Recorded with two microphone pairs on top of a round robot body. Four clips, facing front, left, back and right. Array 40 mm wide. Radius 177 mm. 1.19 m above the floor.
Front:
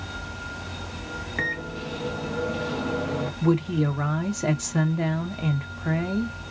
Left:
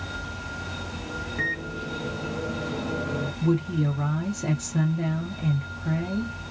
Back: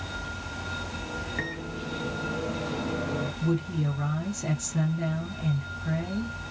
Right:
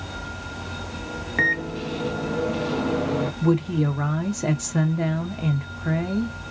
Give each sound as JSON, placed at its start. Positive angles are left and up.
{"t": 1.4, "sound": "a microwave", "azimuth_deg": -80, "distance_m": 0.5}
{"t": 3.4, "sound": "a woman speaking", "azimuth_deg": -30, "distance_m": 0.6}